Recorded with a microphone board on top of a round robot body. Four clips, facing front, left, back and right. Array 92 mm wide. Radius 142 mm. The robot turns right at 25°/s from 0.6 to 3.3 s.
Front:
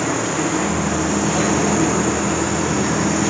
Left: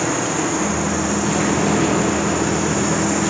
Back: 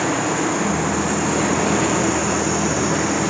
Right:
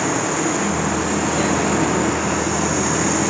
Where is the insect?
150° right, 6 m; by 3.3 s 85° right, 6 m.